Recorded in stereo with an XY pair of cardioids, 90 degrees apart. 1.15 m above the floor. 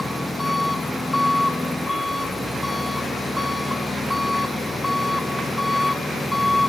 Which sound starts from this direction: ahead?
An engine running, at 0.0 s.